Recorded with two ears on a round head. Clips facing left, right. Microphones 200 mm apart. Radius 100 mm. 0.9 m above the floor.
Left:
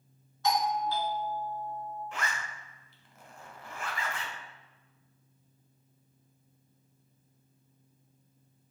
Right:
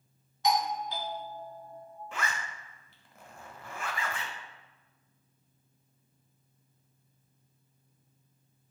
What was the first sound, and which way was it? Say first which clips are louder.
A doorbell: even; 15° right (ahead or behind).